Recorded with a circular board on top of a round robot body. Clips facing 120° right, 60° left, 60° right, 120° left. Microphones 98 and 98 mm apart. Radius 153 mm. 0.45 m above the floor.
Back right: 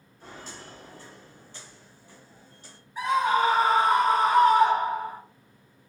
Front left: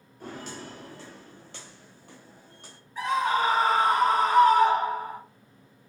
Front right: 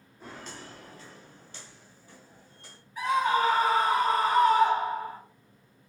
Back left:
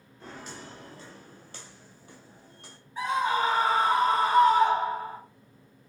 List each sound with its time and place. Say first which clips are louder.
0.2 s footsteps: front left 5 dB, back left 1 dB; 25° left, 0.7 m; by 2.8 s 95° left, 1.5 m
3.0 s a scream: back right 2 dB, front right 1 dB; 165° left, 1.7 m